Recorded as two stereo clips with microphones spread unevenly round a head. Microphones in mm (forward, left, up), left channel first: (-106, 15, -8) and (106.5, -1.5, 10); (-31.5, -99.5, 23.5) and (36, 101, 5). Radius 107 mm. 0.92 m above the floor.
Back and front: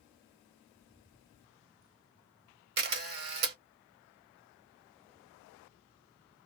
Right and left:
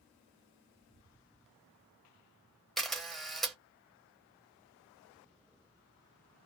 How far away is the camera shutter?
About 0.8 m.